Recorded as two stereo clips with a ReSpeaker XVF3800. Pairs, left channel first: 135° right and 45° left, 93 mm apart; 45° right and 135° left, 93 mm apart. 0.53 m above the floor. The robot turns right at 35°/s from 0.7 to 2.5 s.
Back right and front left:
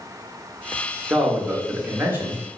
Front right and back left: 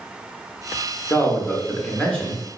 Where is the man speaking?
10° right, 0.8 m; by 2.4 s 35° left, 0.8 m.